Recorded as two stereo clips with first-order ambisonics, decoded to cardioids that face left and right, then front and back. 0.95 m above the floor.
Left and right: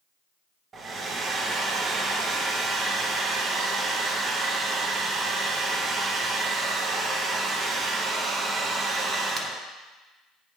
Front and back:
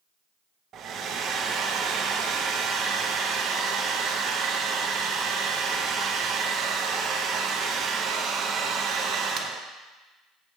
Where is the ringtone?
No ringtone in this recording.